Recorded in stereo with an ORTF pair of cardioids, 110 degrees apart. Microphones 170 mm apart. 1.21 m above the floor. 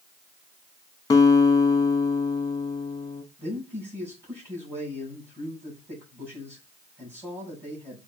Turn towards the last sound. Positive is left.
turn(degrees=-15)